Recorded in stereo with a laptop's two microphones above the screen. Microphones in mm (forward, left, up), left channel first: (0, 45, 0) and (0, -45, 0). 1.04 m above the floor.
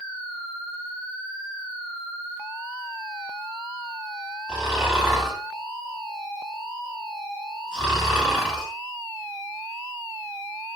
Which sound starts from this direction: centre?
Snoring, at 4.5 s.